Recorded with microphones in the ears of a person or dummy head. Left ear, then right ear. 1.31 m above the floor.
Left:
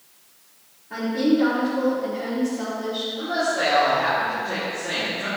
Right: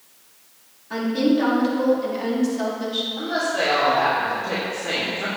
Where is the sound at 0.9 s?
60° right (ahead or behind), 3.5 m.